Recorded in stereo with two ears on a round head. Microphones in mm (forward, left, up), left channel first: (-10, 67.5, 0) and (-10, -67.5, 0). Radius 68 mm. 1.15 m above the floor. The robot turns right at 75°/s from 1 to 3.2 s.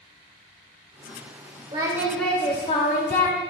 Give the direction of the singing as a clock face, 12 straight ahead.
1 o'clock.